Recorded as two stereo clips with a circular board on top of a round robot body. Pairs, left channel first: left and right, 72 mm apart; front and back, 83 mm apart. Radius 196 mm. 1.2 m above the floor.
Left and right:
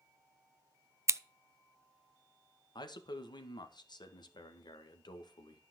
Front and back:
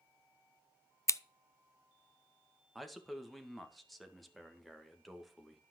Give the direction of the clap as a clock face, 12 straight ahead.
No clap in this recording.